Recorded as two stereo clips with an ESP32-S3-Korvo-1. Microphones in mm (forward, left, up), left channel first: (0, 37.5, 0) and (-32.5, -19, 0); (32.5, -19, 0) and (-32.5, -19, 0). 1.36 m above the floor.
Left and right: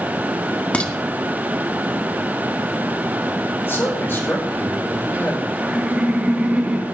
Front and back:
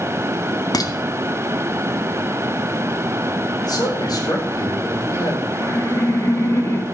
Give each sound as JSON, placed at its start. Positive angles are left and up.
{"t": 0.7, "sound": "dishes clattering", "azimuth_deg": -10, "distance_m": 1.3}
{"t": 3.6, "sound": "a man speaking", "azimuth_deg": 5, "distance_m": 5.0}
{"t": 5.5, "sound": "laughter", "azimuth_deg": -45, "distance_m": 2.5}